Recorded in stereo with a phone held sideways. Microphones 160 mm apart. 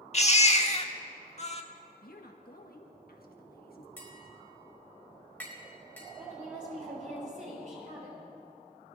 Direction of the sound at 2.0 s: 70° left (ahead or behind).